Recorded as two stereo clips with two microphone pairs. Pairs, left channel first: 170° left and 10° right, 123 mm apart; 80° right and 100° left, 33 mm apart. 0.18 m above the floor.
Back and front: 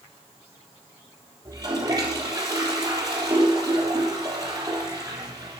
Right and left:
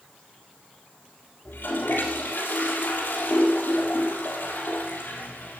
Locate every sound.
1.4 s a toilet flushing: 65° right, 3.5 m